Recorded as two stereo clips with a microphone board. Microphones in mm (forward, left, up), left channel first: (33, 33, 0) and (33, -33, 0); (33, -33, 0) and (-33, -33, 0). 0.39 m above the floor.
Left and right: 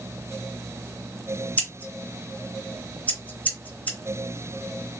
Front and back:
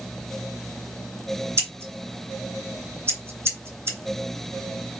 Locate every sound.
1.6 s scissors: 145° left, 2 m